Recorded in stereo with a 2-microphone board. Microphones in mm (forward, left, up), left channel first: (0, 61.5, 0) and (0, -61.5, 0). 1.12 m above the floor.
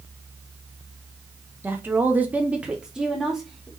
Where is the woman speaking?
15° right (ahead or behind), 0.7 m; by 3.7 s centre (ahead or behind), 1.0 m.